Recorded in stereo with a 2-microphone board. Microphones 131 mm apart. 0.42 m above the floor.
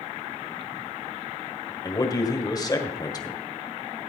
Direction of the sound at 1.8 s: 30° left (ahead or behind).